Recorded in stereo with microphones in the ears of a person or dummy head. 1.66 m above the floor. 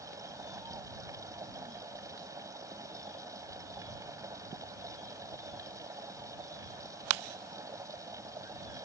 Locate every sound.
0.0 s a machine running: 10° right (ahead or behind)